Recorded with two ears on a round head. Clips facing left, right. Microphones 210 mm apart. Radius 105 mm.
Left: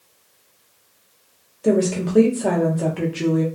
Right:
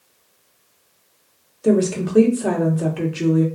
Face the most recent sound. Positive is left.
turn(degrees=-5)  # may be behind; listen again after turning